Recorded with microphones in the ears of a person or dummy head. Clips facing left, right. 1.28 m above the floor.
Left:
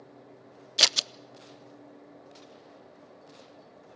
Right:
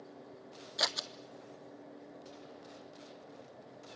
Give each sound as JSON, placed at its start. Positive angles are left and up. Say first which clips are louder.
{"t": 0.8, "sound": "scissors", "louder": "left 4 dB", "side_deg": 35, "distance_m": 0.5}